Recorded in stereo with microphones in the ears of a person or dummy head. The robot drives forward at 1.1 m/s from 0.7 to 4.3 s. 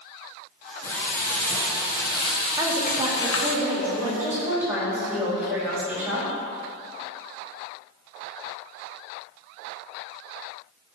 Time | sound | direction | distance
0.8 | frying | 20° left (ahead or behind) | 3 m
2.6 | a woman speaking | 20° right (ahead or behind) | 1.6 m